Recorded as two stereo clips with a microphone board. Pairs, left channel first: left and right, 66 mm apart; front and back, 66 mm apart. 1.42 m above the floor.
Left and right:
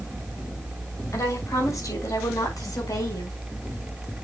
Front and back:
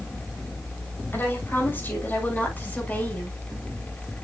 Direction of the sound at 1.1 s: 55° left.